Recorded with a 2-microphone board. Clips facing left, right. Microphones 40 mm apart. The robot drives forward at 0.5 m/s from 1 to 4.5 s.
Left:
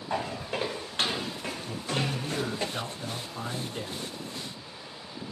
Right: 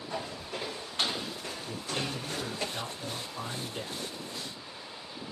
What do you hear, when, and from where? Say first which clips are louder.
0.1 s footsteps: left 7 dB; 80° left, 0.8 m; by 2.7 s 15° left (ahead or behind), 0.6 m
1.7 s a man speaking: left 4 dB; 35° left (ahead or behind), 1.2 m; by 4.0 s 25° left (ahead or behind), 1.6 m